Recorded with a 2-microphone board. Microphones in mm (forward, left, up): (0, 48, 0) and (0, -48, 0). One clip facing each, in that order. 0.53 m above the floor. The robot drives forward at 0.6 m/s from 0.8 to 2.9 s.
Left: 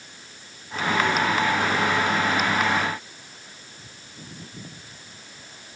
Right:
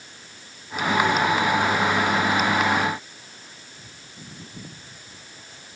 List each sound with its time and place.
Only background noise.